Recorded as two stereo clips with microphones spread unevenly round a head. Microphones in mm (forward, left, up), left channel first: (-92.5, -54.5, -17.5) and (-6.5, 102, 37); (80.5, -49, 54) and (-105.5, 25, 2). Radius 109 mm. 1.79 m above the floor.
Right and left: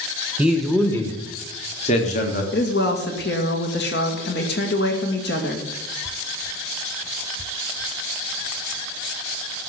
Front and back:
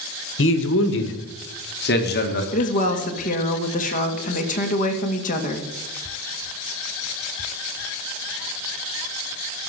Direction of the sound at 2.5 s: 70° right.